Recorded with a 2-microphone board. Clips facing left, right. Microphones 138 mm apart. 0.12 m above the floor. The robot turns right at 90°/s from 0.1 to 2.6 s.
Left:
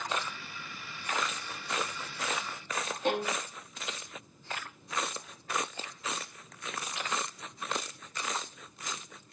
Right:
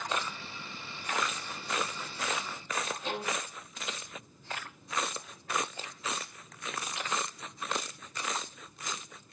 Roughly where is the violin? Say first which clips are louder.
Left 8 dB; left.